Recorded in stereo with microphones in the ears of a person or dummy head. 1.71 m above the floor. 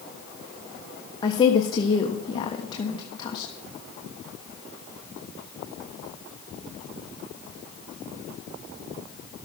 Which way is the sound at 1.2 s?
30° left (ahead or behind).